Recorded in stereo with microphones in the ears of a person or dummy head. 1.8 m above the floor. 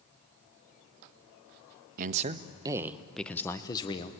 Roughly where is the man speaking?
Right.